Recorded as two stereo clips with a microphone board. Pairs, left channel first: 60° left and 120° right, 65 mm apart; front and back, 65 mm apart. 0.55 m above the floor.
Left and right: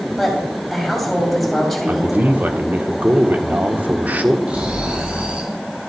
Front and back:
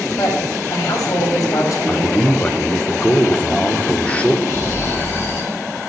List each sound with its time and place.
0.2 s a woman speaking: 30° right, 3 m
1.9 s a man speaking: 65° right, 1.1 m
4.5 s snoring: 50° right, 3 m